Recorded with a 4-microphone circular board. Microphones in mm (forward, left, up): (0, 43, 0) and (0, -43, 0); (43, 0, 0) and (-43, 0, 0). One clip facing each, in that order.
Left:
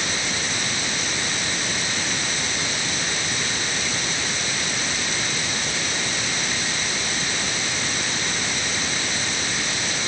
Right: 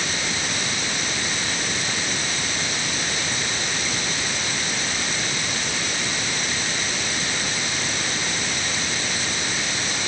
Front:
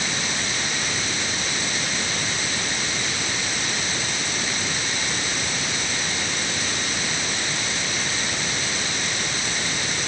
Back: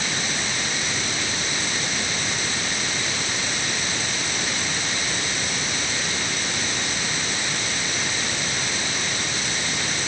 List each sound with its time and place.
Only background noise.